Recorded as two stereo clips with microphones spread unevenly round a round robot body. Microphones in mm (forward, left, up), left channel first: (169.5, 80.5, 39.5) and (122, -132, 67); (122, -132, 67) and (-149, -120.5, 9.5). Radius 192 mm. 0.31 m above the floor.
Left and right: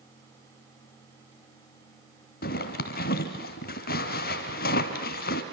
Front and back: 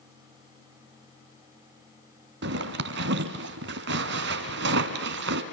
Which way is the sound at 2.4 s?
130° left.